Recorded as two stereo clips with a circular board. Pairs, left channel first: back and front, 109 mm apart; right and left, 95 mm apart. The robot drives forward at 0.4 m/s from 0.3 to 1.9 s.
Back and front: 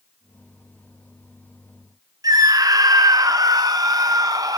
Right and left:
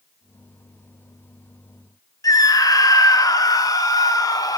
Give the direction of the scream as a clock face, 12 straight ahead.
2 o'clock.